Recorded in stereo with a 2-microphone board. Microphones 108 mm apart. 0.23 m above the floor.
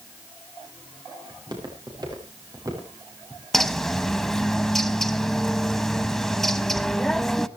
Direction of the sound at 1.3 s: 45° right (ahead or behind).